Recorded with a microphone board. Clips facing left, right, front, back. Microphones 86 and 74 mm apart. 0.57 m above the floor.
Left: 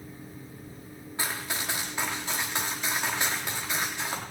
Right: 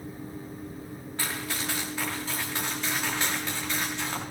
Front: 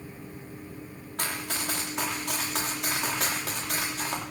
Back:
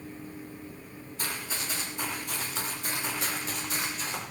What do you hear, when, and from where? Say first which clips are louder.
1.2 s running footsteps: even, front 3 dB; 15° left, 7.5 m; by 4.2 s 10° left, 8.5 m